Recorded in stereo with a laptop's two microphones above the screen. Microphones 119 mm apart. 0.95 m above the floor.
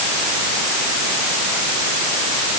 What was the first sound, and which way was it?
Only background noise.